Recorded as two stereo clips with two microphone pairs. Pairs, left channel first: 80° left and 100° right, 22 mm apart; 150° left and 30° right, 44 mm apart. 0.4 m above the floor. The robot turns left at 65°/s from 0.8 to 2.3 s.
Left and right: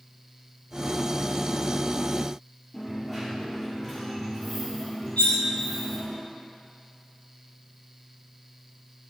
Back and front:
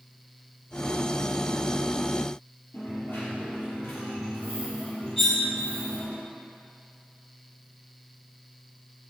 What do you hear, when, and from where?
2.7 s a dropped coin: 160° left, 3 m
5.2 s cutlery clinking: 60° left, 3 m